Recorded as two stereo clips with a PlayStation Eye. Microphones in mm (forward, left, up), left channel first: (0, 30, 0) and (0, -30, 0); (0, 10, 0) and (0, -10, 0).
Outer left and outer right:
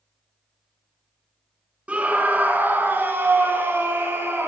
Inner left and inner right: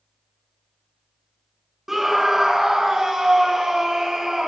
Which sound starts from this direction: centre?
A scream, at 1.9 s.